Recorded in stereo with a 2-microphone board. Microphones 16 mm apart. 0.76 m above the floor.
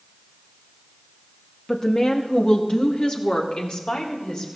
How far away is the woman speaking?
About 1.0 m.